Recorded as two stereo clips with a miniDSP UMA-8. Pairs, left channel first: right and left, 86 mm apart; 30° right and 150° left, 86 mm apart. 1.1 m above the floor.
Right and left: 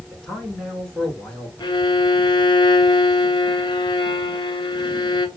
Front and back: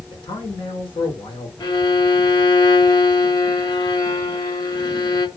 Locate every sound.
0.1 s a man speaking: 10° right, 4 m
1.6 s a violin: 60° right, 1.3 m